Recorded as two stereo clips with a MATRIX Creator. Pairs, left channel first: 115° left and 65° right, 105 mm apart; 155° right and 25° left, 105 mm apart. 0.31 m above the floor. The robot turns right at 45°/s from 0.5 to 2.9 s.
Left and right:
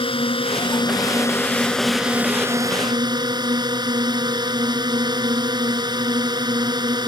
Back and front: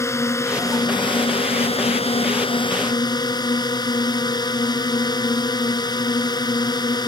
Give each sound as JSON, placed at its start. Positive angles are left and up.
{"t": 0.0, "sound": "a drone", "azimuth_deg": 140}